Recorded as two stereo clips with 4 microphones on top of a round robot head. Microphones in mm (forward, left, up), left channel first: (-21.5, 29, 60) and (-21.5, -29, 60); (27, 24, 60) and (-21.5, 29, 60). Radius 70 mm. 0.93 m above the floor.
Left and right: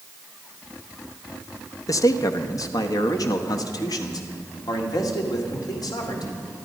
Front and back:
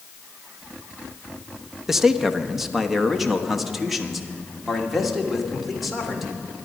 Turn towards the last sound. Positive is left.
turn(degrees=85)